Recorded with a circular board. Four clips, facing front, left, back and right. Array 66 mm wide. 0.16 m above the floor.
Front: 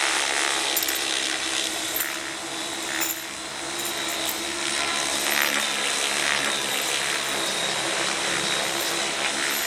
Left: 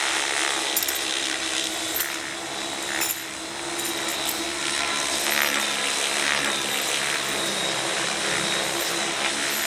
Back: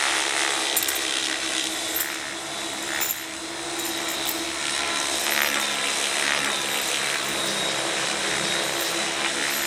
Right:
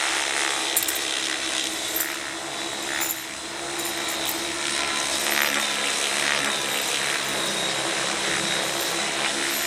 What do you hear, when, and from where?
0.8 s keys jangling: 120° right, 0.8 m; by 9.7 s 75° left, 8 m